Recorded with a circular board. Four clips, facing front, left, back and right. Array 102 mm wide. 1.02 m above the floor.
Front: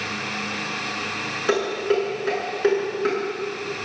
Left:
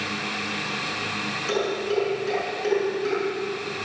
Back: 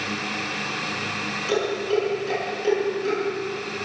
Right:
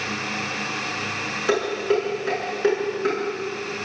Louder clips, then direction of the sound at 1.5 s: Right 4 dB, front 2 dB; 40° right.